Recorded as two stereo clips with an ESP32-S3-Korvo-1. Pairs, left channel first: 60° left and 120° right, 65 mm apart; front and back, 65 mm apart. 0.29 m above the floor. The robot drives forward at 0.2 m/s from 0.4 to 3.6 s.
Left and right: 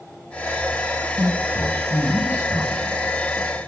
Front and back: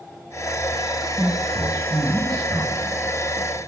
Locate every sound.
1.2 s a man speaking: 90° left, 1.7 m; by 2.9 s 105° left, 1.7 m